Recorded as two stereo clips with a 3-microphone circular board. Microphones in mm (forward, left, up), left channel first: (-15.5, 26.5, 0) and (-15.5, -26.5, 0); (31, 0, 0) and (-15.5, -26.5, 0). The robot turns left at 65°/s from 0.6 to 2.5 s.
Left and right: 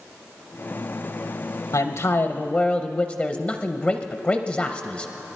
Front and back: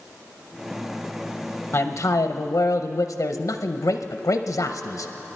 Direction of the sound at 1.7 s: 80° left.